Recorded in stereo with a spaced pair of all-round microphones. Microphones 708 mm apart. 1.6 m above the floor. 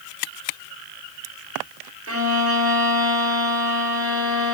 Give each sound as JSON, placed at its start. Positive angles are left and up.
{"t": 2.1, "sound": "a violin", "side_deg": -20, "distance_m": 1.1}